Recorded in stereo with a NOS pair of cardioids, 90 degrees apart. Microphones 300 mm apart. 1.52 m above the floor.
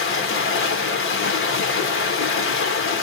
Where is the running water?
45° left, 0.8 m.